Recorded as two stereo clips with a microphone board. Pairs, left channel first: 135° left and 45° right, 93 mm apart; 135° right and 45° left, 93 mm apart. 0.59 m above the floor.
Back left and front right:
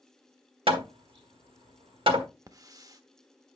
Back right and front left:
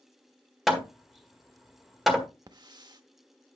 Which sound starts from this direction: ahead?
A hiss, at 2.5 s.